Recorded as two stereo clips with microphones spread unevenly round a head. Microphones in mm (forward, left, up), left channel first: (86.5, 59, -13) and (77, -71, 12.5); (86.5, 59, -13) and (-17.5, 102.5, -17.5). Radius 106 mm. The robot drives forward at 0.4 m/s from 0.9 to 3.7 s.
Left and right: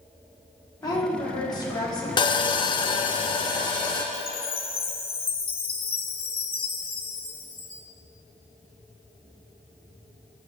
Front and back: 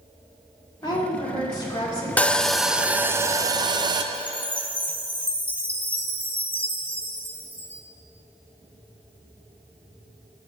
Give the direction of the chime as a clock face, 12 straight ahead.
10 o'clock.